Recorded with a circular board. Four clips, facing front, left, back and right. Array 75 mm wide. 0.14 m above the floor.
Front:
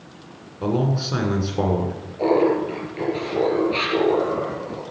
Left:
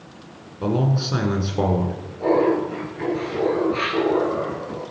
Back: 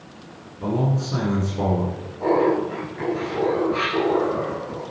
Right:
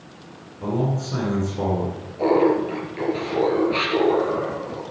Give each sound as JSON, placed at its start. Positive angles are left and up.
{"t": 0.6, "sound": "a man speaking", "azimuth_deg": 50, "distance_m": 1.3}
{"t": 2.2, "sound": "laughter", "azimuth_deg": -45, "distance_m": 3.5}